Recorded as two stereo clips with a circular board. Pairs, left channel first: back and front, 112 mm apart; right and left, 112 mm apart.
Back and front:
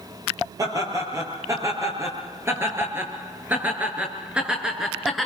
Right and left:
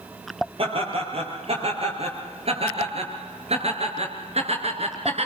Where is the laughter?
60° left, 7.5 m; by 5.3 s 90° left, 4.5 m.